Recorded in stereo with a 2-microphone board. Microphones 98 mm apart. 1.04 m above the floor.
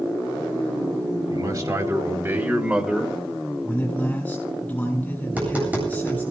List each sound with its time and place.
1.3 s a man speaking: 40° right (ahead or behind), 4 m; by 3.2 s centre (ahead or behind), 2.5 m
3.6 s a man speaking: 15° left (ahead or behind), 7 m
5.2 s tapping: 15° right (ahead or behind), 8.5 m